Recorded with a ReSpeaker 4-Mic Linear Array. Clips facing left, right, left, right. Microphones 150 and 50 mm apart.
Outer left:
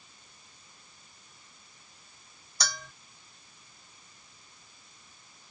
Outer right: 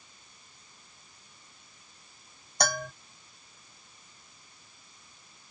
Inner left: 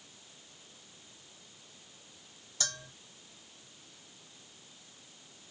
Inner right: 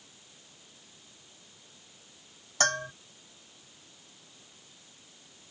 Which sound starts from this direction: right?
A bell, at 2.6 s.